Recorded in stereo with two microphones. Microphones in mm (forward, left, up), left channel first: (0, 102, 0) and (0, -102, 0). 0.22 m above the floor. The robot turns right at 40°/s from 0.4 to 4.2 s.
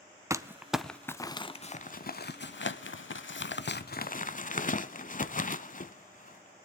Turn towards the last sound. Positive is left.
turn(degrees=40)  # may be behind; listen again after turning